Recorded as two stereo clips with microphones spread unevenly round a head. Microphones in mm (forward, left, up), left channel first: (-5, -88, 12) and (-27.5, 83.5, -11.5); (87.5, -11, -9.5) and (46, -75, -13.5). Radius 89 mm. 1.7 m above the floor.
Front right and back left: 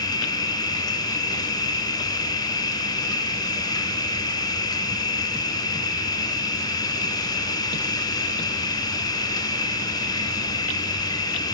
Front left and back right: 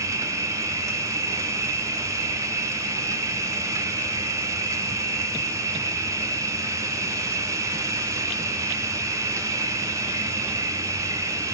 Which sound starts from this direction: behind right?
An insect, at 0.0 s.